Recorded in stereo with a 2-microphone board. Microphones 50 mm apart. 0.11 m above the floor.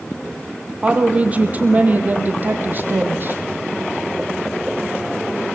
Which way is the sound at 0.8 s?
25° right (ahead or behind).